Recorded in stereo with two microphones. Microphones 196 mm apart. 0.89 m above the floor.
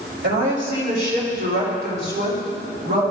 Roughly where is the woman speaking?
Right.